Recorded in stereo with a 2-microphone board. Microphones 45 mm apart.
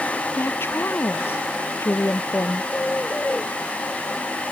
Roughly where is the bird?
Left.